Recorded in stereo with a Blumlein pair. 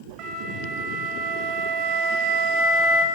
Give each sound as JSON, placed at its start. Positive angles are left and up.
{"t": 0.2, "sound": "a flute", "azimuth_deg": -40, "distance_m": 1.5}